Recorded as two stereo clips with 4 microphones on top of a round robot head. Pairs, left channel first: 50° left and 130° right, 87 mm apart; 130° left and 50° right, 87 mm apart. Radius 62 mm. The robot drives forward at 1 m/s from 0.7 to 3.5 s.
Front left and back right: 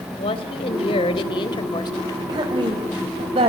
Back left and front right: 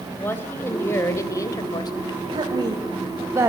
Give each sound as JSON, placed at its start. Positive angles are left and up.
{"t": 0.2, "sound": "a woman speaking", "azimuth_deg": 65, "distance_m": 3.0}
{"t": 2.3, "sound": "a woman speaking", "azimuth_deg": -85, "distance_m": 2.5}